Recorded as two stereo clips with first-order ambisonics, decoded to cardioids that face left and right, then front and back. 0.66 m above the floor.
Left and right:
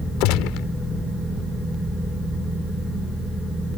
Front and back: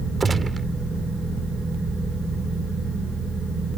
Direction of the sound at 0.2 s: 105° left.